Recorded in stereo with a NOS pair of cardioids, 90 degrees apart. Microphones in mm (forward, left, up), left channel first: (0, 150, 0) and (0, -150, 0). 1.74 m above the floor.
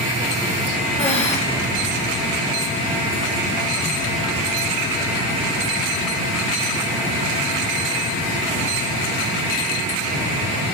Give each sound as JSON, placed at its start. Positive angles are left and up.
{"t": 1.0, "sound": "breathing", "azimuth_deg": 20, "distance_m": 2.5}